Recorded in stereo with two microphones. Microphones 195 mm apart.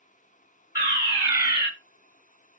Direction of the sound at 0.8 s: 10° right (ahead or behind).